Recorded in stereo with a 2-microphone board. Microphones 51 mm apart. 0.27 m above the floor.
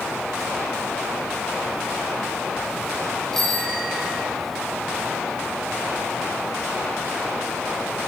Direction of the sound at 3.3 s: 5° left (ahead or behind).